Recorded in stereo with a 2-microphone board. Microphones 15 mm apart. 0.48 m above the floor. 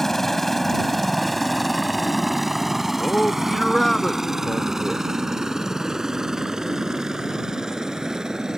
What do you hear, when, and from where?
0.0 s a helicopter: 25° left (ahead or behind); by 8.6 s 40° right (ahead or behind)
3.0 s a man speaking: 25° left (ahead or behind)